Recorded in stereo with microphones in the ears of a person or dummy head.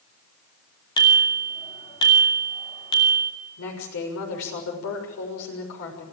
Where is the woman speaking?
90° left, 6.5 m.